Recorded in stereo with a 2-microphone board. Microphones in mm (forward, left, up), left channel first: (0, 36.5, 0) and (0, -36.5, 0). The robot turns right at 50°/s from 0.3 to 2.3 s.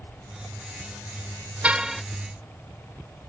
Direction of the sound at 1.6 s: 15° right (ahead or behind).